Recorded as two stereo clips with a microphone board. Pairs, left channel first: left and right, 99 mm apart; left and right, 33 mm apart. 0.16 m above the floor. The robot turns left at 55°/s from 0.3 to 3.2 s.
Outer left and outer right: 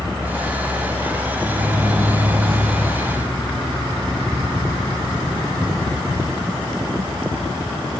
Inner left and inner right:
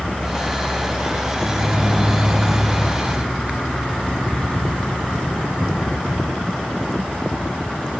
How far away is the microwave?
About 1.1 m.